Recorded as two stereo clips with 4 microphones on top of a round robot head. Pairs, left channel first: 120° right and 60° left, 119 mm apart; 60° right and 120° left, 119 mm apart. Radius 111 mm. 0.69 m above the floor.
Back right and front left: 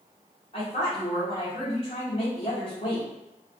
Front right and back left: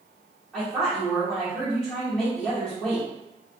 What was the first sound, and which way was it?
A woman speaking, 140° right.